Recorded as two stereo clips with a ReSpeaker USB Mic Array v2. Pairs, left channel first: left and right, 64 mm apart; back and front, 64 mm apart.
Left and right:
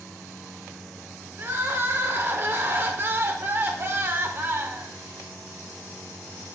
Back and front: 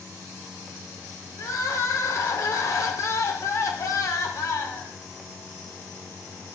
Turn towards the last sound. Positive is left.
turn(degrees=-145)